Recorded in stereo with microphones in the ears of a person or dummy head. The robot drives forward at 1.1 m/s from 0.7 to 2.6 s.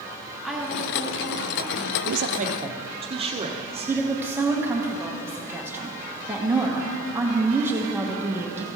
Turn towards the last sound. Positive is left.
turn(degrees=-5)  # may be behind; listen again after turning